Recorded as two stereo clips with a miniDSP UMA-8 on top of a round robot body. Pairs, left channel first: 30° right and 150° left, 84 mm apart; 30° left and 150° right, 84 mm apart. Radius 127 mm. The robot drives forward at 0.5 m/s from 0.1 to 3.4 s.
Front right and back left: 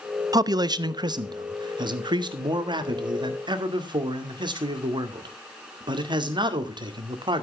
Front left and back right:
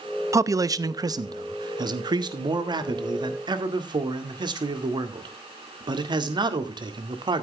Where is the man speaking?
165° left, 0.7 m; by 7.4 s 175° left, 2 m.